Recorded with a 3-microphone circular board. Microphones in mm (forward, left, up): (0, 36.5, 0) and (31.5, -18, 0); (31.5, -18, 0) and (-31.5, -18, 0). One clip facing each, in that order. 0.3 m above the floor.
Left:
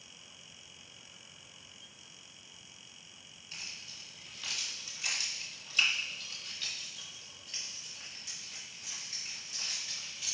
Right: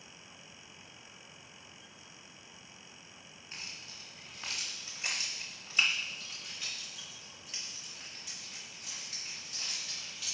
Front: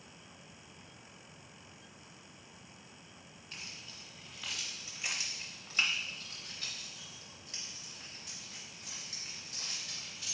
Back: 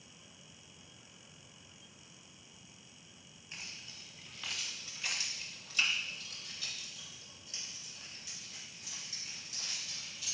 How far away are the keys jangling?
About 1.4 m.